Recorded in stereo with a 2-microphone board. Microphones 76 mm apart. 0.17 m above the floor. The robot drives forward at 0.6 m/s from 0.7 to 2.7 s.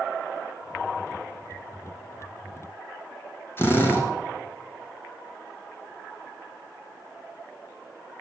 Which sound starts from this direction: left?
A drill, at 3.6 s.